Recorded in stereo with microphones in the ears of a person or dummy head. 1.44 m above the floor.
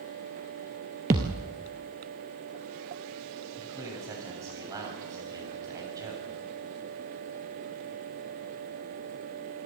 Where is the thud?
15° right (ahead or behind), 1.5 m.